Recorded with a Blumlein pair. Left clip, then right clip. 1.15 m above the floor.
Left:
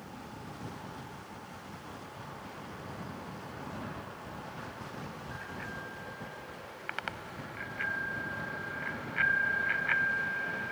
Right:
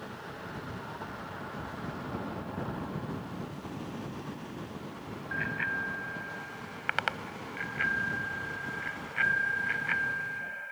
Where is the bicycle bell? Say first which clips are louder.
Right 13 dB; 35° right; by 10.7 s 10° left.